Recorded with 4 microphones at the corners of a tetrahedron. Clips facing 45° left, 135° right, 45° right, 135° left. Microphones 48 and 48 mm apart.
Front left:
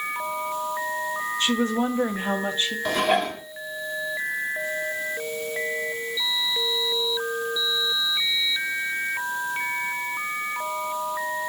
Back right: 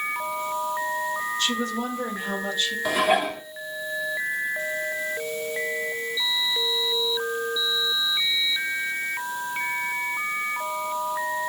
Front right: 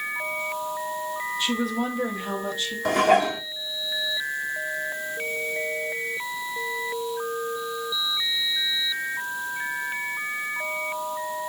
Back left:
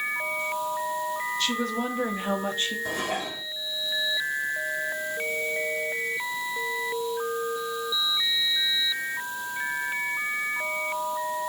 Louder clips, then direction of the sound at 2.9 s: Back right 1 dB, front right 10 dB; 50° right.